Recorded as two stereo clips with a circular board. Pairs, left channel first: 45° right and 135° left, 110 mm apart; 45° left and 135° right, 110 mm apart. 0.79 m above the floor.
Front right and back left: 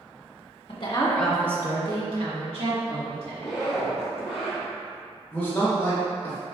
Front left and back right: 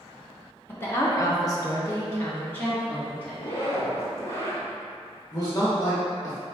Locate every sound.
0.7 s a woman speaking: 20° right, 1.1 m; by 3.4 s 125° left, 3 m
3.4 s a zipper: 55° left, 1.4 m
5.3 s a man speaking: 15° left, 1.1 m